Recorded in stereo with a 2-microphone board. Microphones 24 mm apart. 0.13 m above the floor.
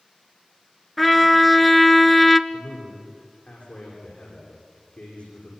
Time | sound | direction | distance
1.0 | a trumpet | centre (ahead or behind) | 0.7 m
2.5 | a man speaking | 60° left (ahead or behind) | 9 m